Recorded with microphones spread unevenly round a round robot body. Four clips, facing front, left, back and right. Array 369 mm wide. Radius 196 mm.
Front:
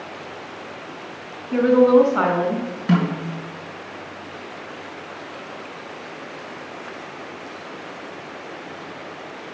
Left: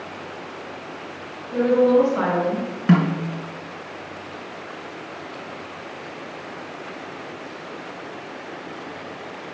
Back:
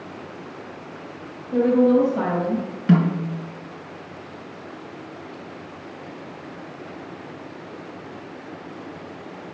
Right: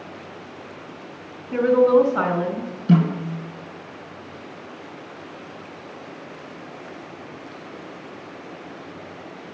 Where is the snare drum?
80° left, 3 m.